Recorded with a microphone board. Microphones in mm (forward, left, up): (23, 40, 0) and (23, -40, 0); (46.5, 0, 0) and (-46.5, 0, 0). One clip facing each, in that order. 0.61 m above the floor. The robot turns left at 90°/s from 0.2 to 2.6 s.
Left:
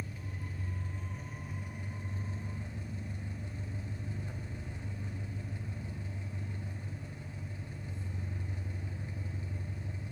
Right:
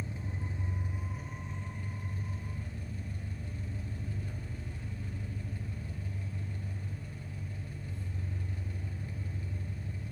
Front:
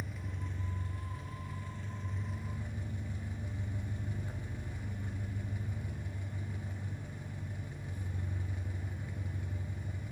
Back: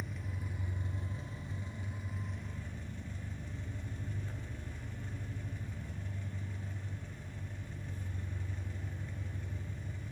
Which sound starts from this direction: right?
An engine running, at 0.0 s.